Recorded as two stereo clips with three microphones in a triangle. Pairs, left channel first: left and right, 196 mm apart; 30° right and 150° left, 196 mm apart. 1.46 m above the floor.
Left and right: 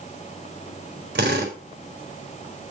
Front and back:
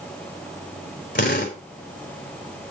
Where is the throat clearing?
No throat clearing in this recording.